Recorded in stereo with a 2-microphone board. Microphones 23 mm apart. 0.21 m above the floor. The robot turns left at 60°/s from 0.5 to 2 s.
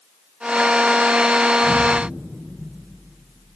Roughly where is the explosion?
Centre.